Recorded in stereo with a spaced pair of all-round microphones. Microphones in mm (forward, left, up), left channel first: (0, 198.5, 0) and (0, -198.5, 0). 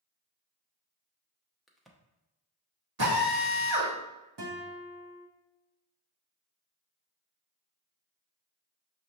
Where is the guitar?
75° right (ahead or behind), 1.0 m.